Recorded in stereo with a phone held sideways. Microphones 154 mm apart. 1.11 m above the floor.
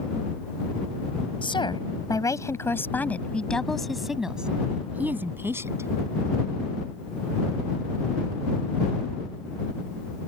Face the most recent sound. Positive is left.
turn(degrees=-20)  # may be behind; listen again after turning